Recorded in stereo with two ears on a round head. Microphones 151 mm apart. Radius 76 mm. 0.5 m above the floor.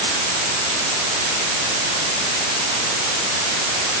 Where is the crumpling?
No crumpling in this recording.